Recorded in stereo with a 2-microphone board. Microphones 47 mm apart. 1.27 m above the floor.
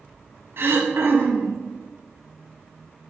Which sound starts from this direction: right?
Throat clearing, at 0.6 s.